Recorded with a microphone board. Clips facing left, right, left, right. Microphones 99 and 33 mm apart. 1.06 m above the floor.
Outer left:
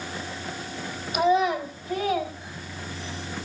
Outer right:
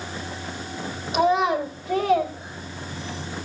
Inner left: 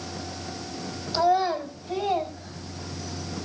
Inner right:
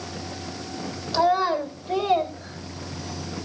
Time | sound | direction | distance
1.1 | a child speaking | 90° right | 3.5 m